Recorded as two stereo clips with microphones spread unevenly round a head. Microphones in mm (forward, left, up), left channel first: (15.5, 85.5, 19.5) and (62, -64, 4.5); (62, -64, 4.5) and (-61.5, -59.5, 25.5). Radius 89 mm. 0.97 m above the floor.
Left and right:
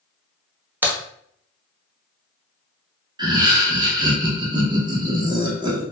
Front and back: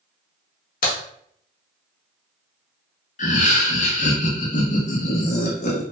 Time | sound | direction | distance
0.8 | a crack | 10° left | 0.8 m
3.2 | laughter | 10° right | 0.7 m